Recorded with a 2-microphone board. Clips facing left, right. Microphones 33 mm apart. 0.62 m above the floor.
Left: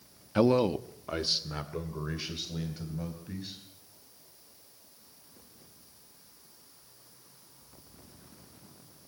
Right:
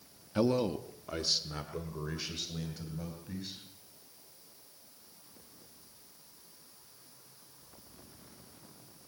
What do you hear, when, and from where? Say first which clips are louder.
0.3 s a man speaking: left 5 dB; 25° left (ahead or behind), 0.7 m; by 3.6 s 10° left (ahead or behind), 4 m